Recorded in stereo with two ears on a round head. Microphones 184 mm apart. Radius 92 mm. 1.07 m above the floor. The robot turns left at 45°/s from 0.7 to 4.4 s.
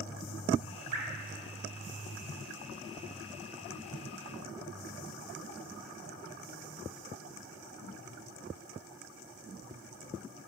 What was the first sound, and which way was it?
Dripping, 55° right (ahead or behind).